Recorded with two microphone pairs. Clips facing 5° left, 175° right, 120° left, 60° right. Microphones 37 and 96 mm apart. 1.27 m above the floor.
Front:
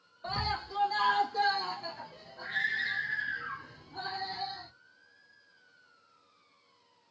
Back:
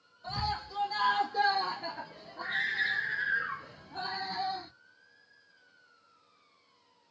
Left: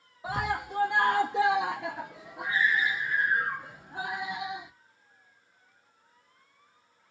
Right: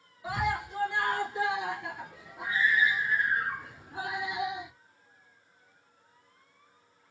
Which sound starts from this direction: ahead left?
A scream, at 0.2 s.